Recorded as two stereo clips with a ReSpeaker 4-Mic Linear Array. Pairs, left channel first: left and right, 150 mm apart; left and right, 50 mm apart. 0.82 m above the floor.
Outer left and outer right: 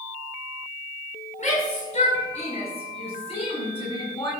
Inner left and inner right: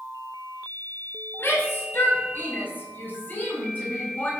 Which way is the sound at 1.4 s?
55° left (ahead or behind).